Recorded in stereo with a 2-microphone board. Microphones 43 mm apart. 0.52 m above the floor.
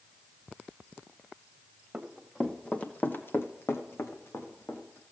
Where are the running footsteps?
5° right (ahead or behind), 1.5 m; by 5.0 s 60° left (ahead or behind), 2.5 m.